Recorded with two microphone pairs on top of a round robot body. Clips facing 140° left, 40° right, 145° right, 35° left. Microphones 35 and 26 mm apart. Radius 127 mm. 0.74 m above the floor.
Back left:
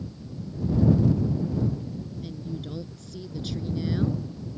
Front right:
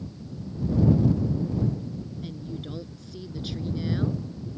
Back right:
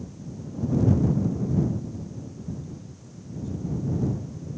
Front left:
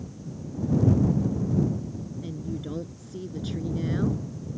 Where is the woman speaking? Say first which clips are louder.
Back left 1 dB, front left 4 dB; 35° left; by 4.3 s 40° left.